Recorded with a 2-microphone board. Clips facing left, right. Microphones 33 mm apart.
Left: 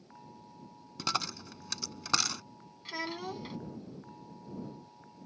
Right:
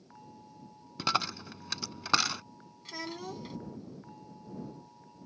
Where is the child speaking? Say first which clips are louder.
Left 2 dB; 20° left (ahead or behind).